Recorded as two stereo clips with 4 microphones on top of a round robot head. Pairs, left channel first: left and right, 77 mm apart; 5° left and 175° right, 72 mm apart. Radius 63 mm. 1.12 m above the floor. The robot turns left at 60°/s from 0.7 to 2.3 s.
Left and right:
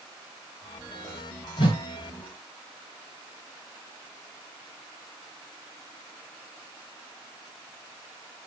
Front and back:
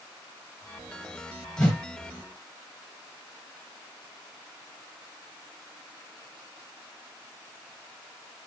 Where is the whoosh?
70° left, 1.5 m; by 1.8 s 60° left, 1.5 m.